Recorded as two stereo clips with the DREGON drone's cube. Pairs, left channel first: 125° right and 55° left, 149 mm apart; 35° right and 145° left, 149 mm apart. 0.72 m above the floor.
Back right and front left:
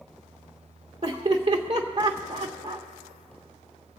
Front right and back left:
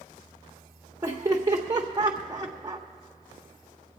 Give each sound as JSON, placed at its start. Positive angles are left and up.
{"t": 1.0, "sound": "laughter", "azimuth_deg": 85, "distance_m": 0.7}